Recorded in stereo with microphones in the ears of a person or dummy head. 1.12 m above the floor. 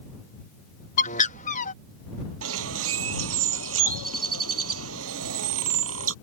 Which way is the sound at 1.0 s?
45° left (ahead or behind).